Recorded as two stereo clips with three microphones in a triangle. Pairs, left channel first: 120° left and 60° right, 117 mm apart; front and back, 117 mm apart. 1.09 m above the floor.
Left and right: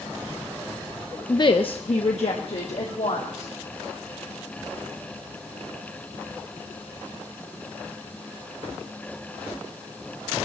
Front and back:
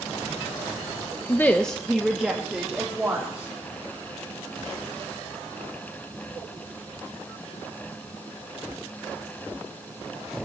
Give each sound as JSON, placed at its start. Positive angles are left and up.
{"t": 1.3, "sound": "a woman speaking", "azimuth_deg": 60, "distance_m": 0.5}